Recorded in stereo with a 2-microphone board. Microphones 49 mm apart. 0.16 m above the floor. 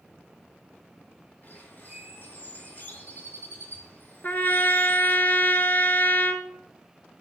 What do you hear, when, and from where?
1.4 s a bird: 40° left (ahead or behind), 3 m
4.2 s a trumpet: 40° left (ahead or behind), 0.9 m